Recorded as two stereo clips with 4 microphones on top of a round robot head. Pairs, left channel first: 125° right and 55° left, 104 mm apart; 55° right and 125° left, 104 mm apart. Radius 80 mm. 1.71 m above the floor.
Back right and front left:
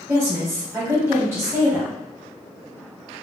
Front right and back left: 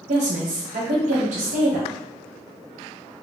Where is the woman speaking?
125° left, 1.3 m.